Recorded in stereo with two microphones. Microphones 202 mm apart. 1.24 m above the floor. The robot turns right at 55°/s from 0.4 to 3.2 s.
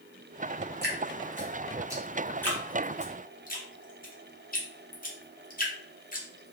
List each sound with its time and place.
0.8 s dripping: 60° right (ahead or behind), 0.8 m; by 6.5 s 45° left (ahead or behind), 0.8 m